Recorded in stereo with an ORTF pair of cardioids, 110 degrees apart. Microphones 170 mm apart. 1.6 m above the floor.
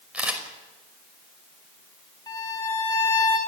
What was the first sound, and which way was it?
A camera shutter, 5° right.